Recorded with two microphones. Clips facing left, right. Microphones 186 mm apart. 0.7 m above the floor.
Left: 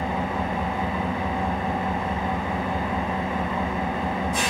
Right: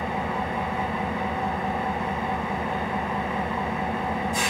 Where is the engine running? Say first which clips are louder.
Left 2 dB; 70° left (ahead or behind), 0.7 m.